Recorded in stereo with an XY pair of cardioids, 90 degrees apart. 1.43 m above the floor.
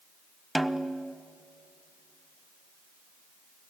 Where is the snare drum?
10° right, 1.0 m.